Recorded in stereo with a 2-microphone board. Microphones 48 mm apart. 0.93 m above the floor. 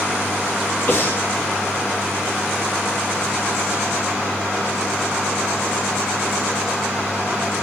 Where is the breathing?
40° left (ahead or behind), 1.8 m.